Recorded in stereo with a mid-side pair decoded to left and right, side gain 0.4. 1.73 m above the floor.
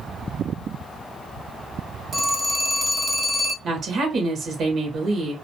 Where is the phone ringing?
60° right, 2.5 m.